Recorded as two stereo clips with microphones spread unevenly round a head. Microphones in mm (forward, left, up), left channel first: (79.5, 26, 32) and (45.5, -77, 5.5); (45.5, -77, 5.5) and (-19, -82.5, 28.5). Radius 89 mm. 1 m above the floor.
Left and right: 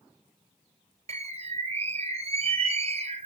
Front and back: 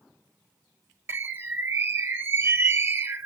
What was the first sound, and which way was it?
A bird, 115° right.